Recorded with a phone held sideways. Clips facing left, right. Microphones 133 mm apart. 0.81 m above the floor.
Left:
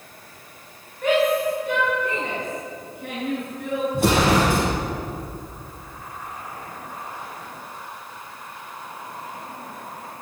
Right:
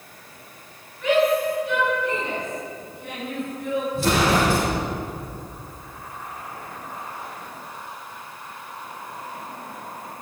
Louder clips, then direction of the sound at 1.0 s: Even; 45° left (ahead or behind).